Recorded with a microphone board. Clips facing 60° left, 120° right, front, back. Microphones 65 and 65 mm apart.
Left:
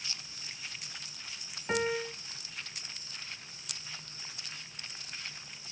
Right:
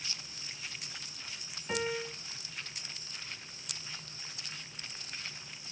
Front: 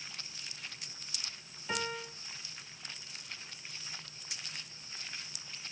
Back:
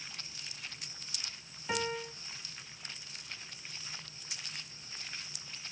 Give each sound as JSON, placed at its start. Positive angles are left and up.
{"t": 1.7, "sound": "a piano", "azimuth_deg": 105, "distance_m": 1.1}